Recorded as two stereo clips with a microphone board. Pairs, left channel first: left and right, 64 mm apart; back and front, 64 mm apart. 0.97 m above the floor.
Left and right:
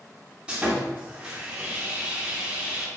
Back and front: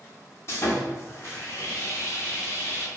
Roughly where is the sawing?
Behind.